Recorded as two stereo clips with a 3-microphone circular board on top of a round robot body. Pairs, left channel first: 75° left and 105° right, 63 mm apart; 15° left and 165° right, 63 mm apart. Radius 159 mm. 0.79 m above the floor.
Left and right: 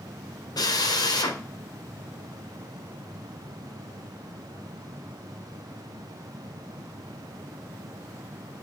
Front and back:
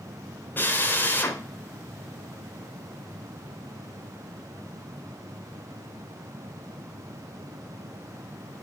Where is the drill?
75° left, 2.5 m.